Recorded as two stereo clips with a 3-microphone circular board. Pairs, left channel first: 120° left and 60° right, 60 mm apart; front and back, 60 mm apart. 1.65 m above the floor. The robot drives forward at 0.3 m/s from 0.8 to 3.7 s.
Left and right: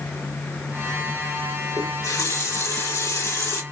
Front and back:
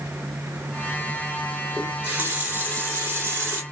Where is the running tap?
115° left, 2 m; by 3.6 s 130° left, 2.5 m.